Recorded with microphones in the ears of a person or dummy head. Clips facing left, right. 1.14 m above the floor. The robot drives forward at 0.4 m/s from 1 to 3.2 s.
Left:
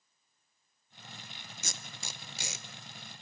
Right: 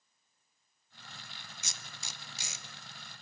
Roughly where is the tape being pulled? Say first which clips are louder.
Left 6 dB; left.